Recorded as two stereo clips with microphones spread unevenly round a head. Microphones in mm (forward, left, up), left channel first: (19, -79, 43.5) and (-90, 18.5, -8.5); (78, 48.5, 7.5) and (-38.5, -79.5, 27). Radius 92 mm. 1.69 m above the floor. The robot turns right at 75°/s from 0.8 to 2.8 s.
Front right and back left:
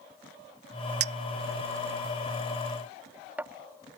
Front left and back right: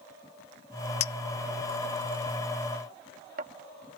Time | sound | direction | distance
1.0 | a clink | 100° left | ?